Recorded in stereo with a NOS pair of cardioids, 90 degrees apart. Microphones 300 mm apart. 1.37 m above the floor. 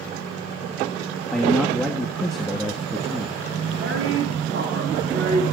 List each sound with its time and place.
1.3 s a man speaking: straight ahead, 1.7 m
3.8 s a woman speaking: 45° right, 4 m